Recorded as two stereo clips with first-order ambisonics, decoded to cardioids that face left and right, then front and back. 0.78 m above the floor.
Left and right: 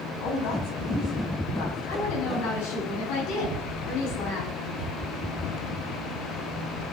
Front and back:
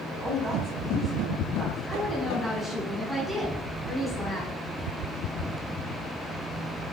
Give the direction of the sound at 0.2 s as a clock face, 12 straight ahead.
9 o'clock.